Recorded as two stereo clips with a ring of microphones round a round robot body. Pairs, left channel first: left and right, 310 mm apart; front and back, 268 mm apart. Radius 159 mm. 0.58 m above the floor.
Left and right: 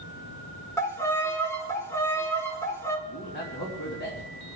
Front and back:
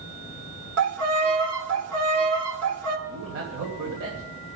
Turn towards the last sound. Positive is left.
turn(degrees=145)